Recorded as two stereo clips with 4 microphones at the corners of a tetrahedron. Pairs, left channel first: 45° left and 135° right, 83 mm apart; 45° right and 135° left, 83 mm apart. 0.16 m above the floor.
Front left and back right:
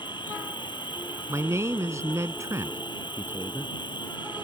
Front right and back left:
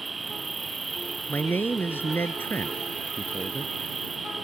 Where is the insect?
45° left.